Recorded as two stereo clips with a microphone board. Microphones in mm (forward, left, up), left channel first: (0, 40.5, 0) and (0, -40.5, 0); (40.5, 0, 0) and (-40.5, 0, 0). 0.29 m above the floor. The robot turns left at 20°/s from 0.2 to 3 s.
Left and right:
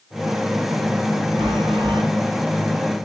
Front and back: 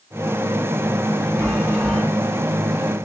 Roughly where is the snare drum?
No snare drum in this recording.